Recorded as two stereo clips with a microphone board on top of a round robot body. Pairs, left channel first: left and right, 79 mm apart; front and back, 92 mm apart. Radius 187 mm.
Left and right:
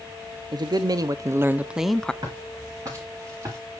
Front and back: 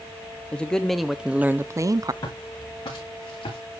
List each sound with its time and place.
0.5 s a man speaking: 80° right, 1.0 m; by 2.1 s 165° left, 0.8 m
2.2 s footsteps: 50° right, 7 m; by 3.6 s 35° right, 7 m